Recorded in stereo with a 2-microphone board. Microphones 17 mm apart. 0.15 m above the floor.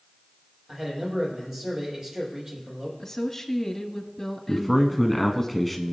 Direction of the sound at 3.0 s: 20° left (ahead or behind).